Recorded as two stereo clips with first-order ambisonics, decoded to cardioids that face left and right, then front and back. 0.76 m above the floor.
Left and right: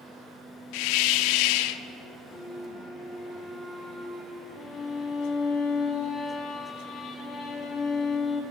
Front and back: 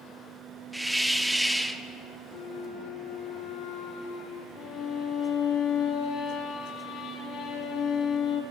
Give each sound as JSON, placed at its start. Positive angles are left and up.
{"t": 0.7, "sound": "a hiss", "azimuth_deg": 95, "distance_m": 0.5}
{"t": 2.3, "sound": "a flute", "azimuth_deg": -10, "distance_m": 2.0}
{"t": 4.6, "sound": "a violin", "azimuth_deg": 30, "distance_m": 1.7}